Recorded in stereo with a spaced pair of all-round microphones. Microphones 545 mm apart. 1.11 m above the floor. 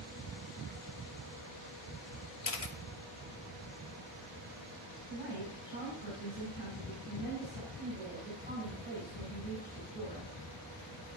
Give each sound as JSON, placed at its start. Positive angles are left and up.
{"t": 2.4, "sound": "a camera shutter", "side_deg": 80, "distance_m": 0.8}
{"t": 5.1, "sound": "a woman speaking", "side_deg": 45, "distance_m": 3.5}